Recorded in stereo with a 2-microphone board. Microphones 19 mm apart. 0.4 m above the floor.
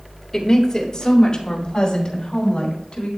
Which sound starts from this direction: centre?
A woman speaking, at 0.3 s.